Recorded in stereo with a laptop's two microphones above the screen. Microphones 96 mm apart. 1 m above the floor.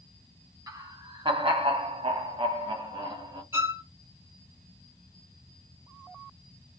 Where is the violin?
20° right (ahead or behind), 0.8 m.